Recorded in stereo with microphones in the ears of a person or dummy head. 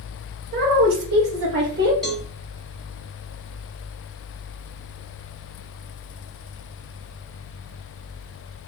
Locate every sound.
0.5 s a woman speaking: 50° right (ahead or behind), 1.5 m; by 1.9 s 40° right (ahead or behind), 1.6 m
2.0 s a cowbell: centre (ahead or behind), 0.7 m